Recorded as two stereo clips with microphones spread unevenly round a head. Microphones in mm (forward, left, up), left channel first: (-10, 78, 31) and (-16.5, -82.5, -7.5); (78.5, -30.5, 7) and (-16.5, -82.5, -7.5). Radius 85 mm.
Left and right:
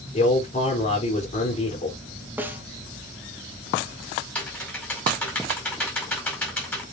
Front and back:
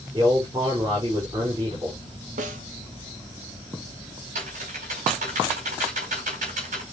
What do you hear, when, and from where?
0.1 s a man speaking: 140° left, 4 m
2.4 s a snare drum: 170° right, 1.8 m
4.3 s typing on a keyboard: 170° left, 5 m